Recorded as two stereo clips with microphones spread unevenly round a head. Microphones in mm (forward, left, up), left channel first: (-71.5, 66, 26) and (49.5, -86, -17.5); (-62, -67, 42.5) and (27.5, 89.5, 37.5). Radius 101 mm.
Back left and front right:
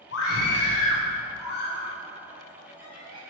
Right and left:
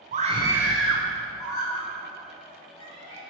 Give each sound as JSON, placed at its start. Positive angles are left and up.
{"t": 0.1, "sound": "a scream", "azimuth_deg": 95, "distance_m": 0.8}